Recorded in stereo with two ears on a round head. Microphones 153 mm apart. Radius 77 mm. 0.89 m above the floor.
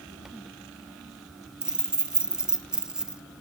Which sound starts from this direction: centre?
Keys jangling, at 1.6 s.